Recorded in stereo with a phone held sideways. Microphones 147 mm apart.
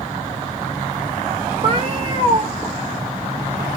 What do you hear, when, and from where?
1.6 s a cat meowing: 35° right (ahead or behind), 0.9 m